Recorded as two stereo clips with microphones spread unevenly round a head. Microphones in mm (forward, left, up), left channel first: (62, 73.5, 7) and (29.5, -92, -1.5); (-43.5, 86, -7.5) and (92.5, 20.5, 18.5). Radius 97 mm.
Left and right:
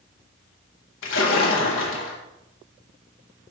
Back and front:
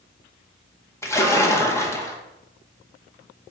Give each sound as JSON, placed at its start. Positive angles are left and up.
{"t": 1.0, "sound": "a splash", "azimuth_deg": 80, "distance_m": 1.5}